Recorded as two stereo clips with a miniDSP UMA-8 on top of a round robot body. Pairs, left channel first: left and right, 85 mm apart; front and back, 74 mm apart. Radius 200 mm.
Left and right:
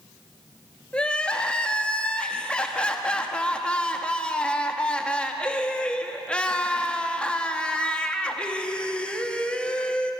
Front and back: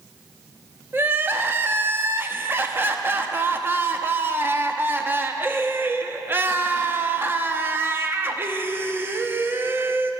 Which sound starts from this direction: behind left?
Crying, at 0.9 s.